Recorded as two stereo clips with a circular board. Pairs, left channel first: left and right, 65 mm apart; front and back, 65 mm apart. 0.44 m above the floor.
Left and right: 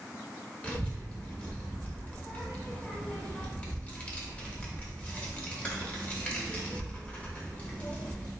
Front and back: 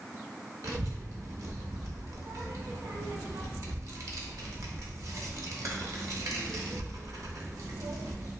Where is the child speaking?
155° left, 0.7 m.